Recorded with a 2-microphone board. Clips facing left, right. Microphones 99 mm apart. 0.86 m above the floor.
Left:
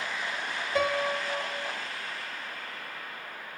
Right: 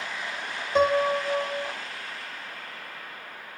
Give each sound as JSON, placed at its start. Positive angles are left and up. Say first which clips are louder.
{"t": 0.8, "sound": "a piano", "louder": "right 7 dB", "side_deg": -25, "distance_m": 0.7}